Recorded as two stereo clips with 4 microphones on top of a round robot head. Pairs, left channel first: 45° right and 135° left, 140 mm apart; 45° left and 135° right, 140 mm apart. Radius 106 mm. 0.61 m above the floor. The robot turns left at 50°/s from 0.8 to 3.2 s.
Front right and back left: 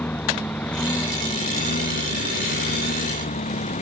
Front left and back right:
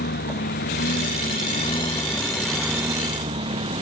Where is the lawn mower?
40° left; by 3.8 s 80° right.